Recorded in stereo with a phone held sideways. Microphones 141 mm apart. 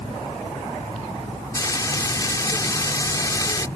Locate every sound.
1.6 s frying: 25° left (ahead or behind)